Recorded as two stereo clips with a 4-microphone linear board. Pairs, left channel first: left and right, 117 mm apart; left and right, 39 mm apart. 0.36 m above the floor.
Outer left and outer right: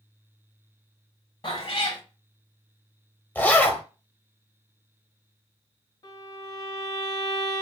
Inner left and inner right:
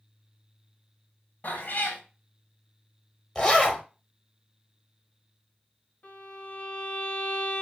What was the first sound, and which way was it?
A cat meowing, 60° left (ahead or behind).